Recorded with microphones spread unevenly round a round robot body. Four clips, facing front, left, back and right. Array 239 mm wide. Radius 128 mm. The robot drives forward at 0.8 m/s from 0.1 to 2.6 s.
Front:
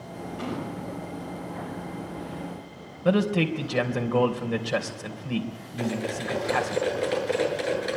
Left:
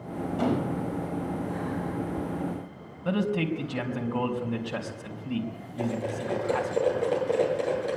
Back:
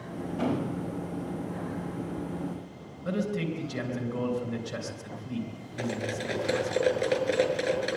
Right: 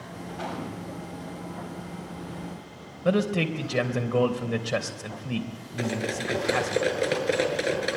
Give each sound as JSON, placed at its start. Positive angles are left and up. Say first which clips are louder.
{"t": 0.4, "sound": "a gunshot", "louder": "left 8 dB, back 4 dB", "azimuth_deg": 125, "distance_m": 2.5}
{"t": 3.0, "sound": "a man speaking", "louder": "right 3 dB, front 7 dB", "azimuth_deg": -40, "distance_m": 3.5}
{"t": 5.8, "sound": "cutlery clinking", "louder": "right 1 dB, front 3 dB", "azimuth_deg": -95, "distance_m": 7.5}